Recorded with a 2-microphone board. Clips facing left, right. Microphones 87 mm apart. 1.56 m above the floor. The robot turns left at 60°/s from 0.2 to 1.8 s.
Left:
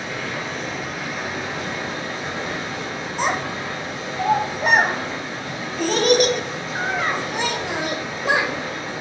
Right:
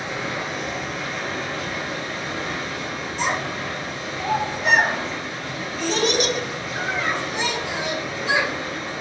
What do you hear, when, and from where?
0.0 s running water: 15° right (ahead or behind), 0.9 m; by 9.0 s 25° left (ahead or behind), 0.9 m
3.2 s a child speaking: 45° left (ahead or behind), 0.7 m